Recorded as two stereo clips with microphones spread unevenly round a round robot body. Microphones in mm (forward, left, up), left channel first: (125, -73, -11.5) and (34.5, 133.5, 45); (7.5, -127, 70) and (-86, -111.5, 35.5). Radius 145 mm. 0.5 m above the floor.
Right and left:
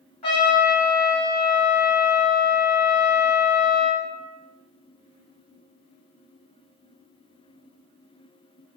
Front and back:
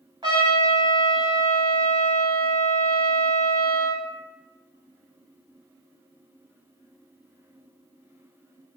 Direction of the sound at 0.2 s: 140° right.